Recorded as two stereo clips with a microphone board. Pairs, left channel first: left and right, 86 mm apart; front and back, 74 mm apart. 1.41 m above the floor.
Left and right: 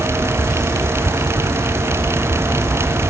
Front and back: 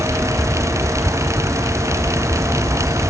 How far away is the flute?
No flute in this recording.